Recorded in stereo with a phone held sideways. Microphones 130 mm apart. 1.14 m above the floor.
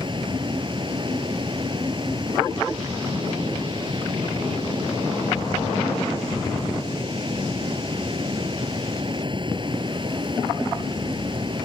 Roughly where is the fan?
Right.